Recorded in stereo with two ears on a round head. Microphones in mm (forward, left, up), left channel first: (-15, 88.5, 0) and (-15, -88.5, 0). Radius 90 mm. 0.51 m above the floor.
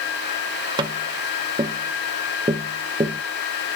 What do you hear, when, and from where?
0.8 s tapping: 25° right (ahead or behind), 1.0 m